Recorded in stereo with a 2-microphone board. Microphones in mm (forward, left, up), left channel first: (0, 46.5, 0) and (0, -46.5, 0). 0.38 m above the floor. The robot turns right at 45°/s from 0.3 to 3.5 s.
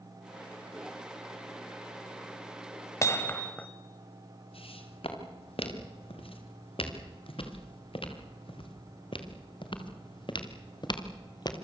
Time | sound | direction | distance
3.0 | hammering | 30° left (ahead or behind) | 1.6 m
4.5 | footsteps | 85° left | 6 m